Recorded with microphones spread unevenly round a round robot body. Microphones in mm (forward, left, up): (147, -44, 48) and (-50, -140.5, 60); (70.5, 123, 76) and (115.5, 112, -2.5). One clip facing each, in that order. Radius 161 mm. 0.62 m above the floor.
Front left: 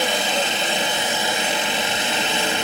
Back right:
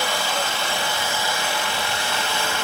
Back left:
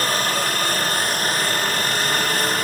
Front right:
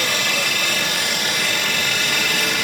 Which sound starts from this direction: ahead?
A helicopter, at 0.0 s.